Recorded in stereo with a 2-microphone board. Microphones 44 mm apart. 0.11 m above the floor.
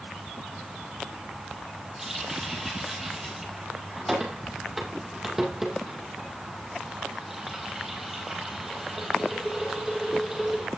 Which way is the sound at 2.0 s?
10° right (ahead or behind).